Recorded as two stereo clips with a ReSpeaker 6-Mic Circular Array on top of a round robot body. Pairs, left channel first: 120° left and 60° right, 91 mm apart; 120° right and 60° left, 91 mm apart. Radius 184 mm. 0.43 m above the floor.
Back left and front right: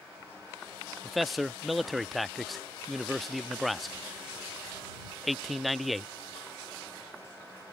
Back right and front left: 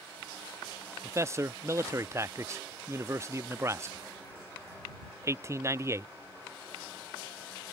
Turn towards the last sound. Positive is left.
turn(degrees=30)